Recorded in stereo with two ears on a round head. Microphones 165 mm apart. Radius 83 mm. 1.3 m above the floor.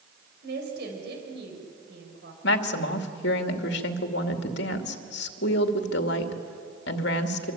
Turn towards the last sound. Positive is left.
turn(degrees=70)  # may be behind; listen again after turning